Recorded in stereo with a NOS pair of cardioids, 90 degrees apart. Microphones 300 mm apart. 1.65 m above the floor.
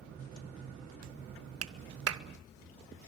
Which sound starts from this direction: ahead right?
A clap, at 1.6 s.